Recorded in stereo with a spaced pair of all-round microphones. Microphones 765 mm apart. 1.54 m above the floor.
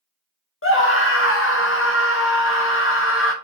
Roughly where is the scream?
Centre.